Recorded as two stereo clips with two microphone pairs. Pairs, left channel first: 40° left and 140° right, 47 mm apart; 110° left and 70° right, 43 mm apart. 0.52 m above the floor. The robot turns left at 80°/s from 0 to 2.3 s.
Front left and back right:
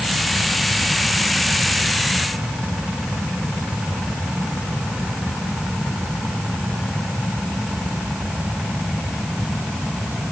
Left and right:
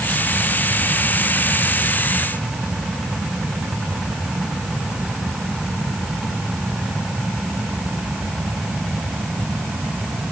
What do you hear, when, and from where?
Only background noise.